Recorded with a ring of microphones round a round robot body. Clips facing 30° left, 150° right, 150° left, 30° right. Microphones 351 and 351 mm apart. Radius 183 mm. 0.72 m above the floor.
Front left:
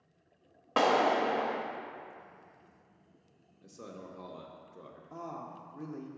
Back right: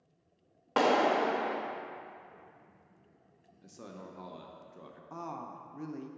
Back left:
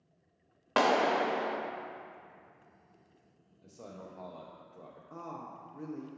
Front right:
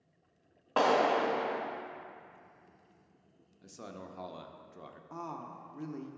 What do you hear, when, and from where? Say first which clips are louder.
0.8 s a clap: back right 1 dB, even; 125° left, 0.9 m
3.6 s a man speaking: front left 1 dB, front right 1 dB; 70° right, 0.6 m
5.1 s a woman speaking: even, front right 1 dB; 95° right, 0.6 m